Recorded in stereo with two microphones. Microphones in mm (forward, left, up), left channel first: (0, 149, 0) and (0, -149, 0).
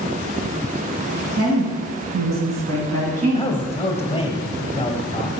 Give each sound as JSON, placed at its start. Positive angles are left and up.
{"t": 1.4, "sound": "a woman speaking", "side_deg": -55, "distance_m": 2.0}
{"t": 3.3, "sound": "a man speaking", "side_deg": 20, "distance_m": 1.0}